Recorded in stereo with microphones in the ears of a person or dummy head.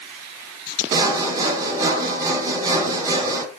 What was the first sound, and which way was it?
Sawing, 30° right (ahead or behind).